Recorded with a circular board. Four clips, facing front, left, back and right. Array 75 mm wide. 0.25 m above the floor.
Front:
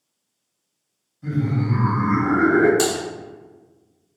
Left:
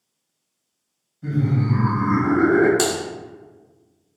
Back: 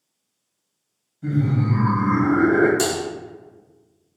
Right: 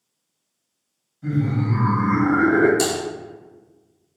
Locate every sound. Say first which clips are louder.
1.2 s laughter: even, back 1 dB; 170° right, 1.3 m; by 2.7 s 85° right, 1.6 m
2.8 s typing on a keyboard: even, front 1 dB; 80° left, 0.7 m